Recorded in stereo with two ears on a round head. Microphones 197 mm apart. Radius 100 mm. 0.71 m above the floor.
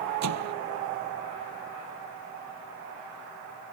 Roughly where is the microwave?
Right.